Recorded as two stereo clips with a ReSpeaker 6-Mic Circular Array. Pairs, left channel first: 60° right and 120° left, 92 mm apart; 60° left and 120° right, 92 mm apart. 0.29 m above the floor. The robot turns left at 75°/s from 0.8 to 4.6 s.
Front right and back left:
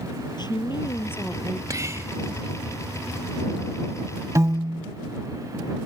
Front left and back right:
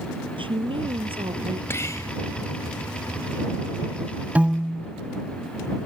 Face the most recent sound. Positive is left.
turn(degrees=150)